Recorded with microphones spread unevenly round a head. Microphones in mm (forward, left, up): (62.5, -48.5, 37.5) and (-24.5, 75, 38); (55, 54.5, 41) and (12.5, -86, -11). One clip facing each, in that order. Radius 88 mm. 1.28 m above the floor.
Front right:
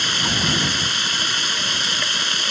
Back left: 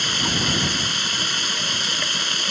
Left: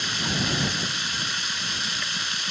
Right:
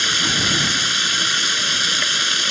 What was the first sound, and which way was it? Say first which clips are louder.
Running water: even, right 3 dB; 145° right.